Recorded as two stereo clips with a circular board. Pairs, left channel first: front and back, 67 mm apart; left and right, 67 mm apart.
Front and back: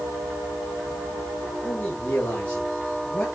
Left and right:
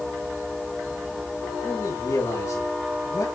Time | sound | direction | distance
1.6 | a man speaking | 65° left | 6 m